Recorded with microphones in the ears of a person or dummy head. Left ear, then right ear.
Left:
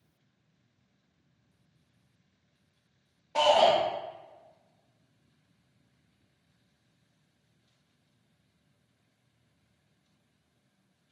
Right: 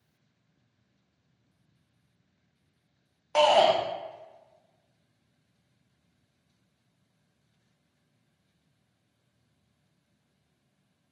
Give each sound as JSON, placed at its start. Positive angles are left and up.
{"t": 3.4, "sound": "a shout", "side_deg": -40, "distance_m": 0.5}